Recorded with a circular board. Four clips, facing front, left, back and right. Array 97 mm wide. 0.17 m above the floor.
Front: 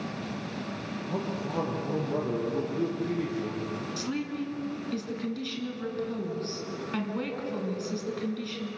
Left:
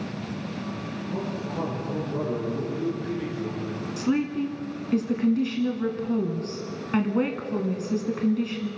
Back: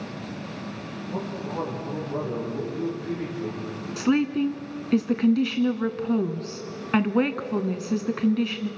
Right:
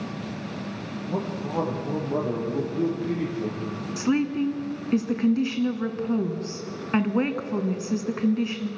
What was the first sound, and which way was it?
A man speaking, 70° right.